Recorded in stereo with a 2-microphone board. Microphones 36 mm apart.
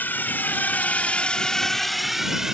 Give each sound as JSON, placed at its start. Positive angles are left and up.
{"t": 0.0, "sound": "a drone", "side_deg": 75}